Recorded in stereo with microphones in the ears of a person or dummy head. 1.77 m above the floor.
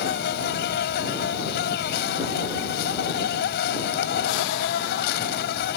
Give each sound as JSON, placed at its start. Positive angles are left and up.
{"t": 0.0, "sound": "an insect", "side_deg": 60}